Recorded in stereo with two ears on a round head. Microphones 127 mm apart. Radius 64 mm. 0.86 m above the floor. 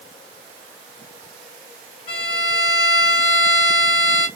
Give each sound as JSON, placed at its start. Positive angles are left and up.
{"t": 2.1, "sound": "a violin", "side_deg": 60, "distance_m": 1.8}